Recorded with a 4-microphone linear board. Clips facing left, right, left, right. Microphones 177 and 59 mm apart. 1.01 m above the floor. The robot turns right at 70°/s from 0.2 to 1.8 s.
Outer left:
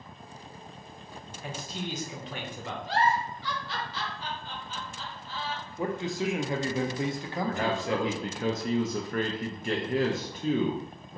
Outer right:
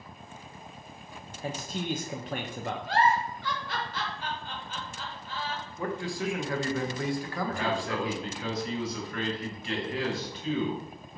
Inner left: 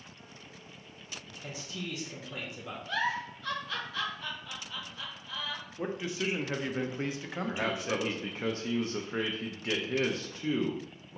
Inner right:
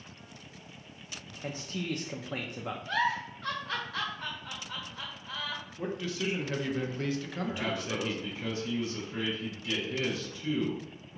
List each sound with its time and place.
1.4 s a man speaking: 35° right (ahead or behind), 0.5 m; by 2.8 s 55° right (ahead or behind), 0.5 m
2.9 s a giggle: 55° right (ahead or behind), 0.9 m
5.8 s a man speaking: 20° left (ahead or behind), 0.6 m
7.5 s a man speaking: 50° left (ahead or behind), 0.6 m